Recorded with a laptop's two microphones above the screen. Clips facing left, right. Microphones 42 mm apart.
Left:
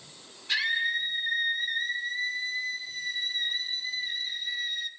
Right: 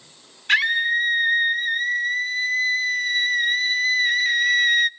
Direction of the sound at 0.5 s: 55° right (ahead or behind).